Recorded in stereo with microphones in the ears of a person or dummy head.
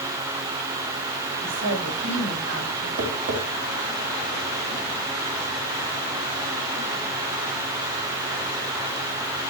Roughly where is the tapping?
Right.